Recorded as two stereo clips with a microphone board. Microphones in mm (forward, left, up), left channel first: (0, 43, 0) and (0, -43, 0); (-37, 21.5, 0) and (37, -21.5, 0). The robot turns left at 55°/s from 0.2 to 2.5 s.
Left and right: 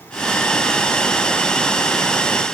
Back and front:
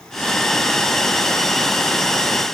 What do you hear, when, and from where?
Only background noise.